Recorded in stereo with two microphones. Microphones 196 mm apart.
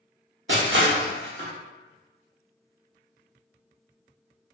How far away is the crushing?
About 0.7 m.